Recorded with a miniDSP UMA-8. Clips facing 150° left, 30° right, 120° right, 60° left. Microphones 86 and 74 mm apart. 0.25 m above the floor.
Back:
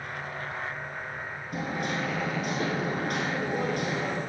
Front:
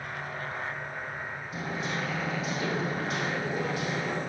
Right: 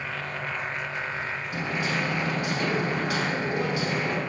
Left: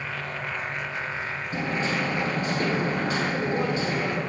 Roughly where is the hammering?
Behind left.